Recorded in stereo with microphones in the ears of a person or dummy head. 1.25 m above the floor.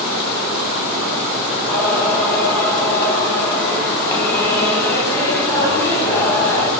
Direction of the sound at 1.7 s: 10° left (ahead or behind).